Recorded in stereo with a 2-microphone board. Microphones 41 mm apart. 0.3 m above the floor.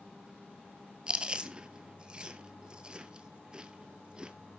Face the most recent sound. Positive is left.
turn(degrees=-20)  # may be behind; listen again after turning